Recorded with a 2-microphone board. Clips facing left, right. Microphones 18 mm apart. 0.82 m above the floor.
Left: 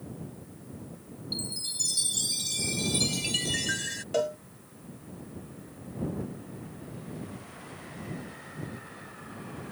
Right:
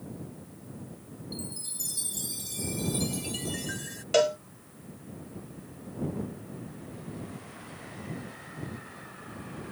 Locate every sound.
1.3 s a chime: 45° left (ahead or behind)
4.1 s a cowbell: 60° right (ahead or behind)